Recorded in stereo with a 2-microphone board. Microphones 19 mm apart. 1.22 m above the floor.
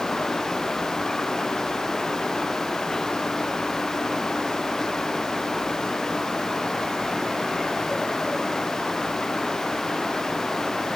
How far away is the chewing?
I don't hear chewing.